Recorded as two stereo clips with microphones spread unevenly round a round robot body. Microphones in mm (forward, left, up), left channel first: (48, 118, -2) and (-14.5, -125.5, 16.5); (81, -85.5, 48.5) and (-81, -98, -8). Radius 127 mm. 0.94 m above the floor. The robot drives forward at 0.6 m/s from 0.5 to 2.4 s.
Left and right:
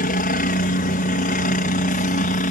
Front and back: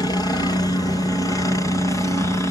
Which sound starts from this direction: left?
A helicopter, at 0.0 s.